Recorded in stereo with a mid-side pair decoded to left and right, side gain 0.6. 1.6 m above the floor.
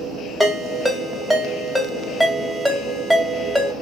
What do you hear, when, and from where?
0.4 s a ringtone: straight ahead, 1.8 m